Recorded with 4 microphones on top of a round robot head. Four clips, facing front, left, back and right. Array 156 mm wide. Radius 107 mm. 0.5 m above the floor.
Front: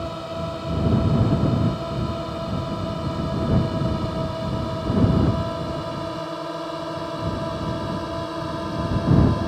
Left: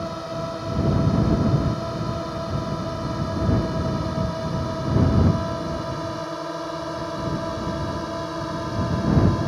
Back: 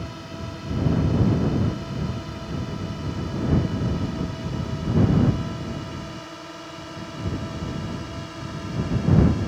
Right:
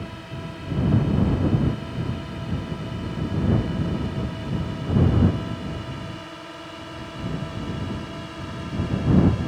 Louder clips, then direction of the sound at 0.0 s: Left 7 dB, front 7 dB; 45° left.